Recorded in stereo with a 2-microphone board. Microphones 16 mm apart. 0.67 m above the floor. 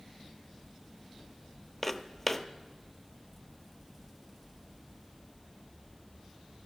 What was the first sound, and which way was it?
Footsteps, 10° left (ahead or behind).